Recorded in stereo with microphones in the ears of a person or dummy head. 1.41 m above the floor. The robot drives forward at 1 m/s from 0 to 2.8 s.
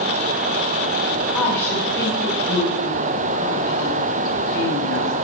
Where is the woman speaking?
10° left (ahead or behind), 4.5 m.